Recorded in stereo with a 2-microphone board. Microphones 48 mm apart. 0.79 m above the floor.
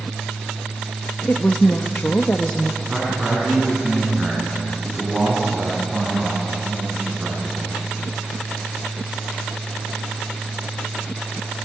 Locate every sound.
1.3 s a woman speaking: 40° left (ahead or behind), 0.9 m
2.8 s a man speaking: 20° right (ahead or behind), 6 m